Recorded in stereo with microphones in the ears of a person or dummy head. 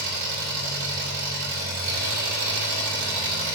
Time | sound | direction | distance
0.0 | an engine running | 60° right (ahead or behind) | 5 m